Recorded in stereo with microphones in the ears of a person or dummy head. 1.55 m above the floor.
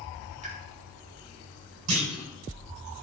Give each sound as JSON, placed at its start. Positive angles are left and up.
{"t": 0.4, "sound": "a pop", "side_deg": -35, "distance_m": 3.0}
{"t": 1.9, "sound": "a clunk", "side_deg": -85, "distance_m": 7.0}